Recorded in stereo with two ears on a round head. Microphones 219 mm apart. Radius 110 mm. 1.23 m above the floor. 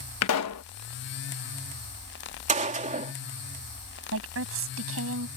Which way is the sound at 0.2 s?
65° left (ahead or behind).